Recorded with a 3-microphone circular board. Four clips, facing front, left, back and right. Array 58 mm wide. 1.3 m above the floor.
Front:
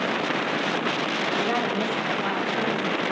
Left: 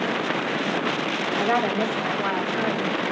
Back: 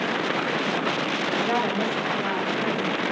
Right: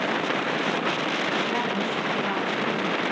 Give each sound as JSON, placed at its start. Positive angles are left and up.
{"t": 1.4, "sound": "a woman speaking", "azimuth_deg": 75, "distance_m": 5.0}